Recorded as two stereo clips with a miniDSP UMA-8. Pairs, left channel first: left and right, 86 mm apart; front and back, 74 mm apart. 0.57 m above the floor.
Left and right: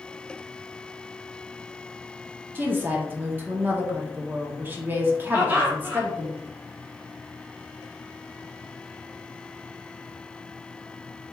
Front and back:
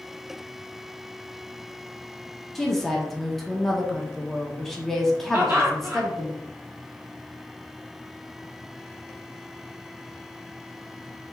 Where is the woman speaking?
80° right, 0.7 m.